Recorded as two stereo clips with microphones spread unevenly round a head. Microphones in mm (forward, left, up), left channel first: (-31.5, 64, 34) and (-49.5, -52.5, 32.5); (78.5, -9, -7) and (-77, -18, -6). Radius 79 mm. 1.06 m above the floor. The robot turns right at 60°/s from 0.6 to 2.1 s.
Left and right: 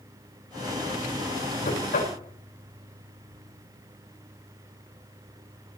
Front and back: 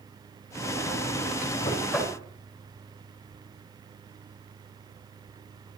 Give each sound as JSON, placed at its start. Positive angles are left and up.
{"t": 1.6, "sound": "knocking", "azimuth_deg": 75, "distance_m": 4.5}